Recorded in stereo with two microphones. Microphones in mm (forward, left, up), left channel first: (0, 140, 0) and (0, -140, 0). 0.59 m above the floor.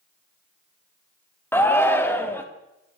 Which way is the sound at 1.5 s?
10° left (ahead or behind).